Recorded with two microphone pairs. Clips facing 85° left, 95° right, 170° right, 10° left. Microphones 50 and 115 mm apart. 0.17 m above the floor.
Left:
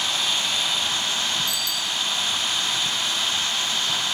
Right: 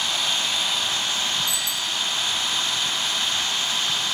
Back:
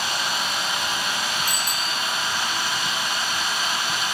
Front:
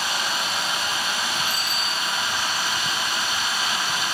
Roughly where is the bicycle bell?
Behind.